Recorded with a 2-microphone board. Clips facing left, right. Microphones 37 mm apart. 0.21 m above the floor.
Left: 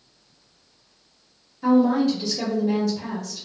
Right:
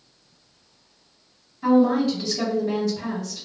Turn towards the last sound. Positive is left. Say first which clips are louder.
# even
turn(degrees=-5)  # may be behind; listen again after turning